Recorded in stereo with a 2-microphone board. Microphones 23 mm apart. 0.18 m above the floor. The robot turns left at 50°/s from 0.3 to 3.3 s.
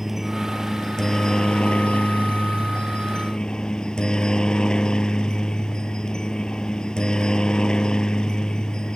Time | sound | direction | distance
0.0 | a helicopter | 170° right | ?